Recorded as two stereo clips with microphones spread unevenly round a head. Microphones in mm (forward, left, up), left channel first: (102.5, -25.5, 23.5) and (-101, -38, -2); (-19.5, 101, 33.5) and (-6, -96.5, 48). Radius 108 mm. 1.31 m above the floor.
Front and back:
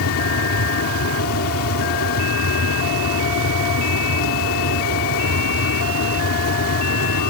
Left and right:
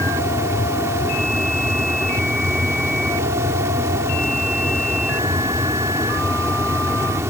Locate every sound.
0.0 s a fan: 10° right